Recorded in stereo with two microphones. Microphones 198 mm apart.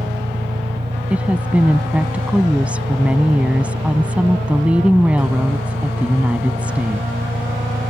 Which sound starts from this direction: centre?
A woman speaking, at 1.1 s.